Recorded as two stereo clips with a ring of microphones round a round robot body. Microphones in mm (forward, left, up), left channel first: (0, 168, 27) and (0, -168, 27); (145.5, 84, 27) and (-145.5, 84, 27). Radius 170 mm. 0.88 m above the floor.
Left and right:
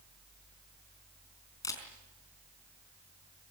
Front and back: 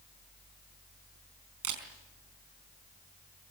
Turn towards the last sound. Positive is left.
turn(degrees=170)